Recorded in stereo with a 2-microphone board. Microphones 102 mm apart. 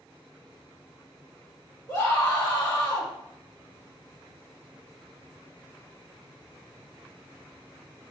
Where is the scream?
15° left (ahead or behind), 2.0 m.